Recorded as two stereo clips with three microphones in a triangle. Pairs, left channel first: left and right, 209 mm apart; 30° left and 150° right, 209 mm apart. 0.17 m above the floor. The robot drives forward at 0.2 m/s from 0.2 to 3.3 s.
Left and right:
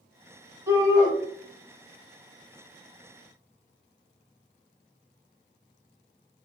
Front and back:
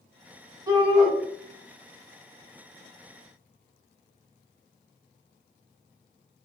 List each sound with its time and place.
0.7 s a shout: 130° right, 1.3 m; by 1.1 s 135° right, 1.3 m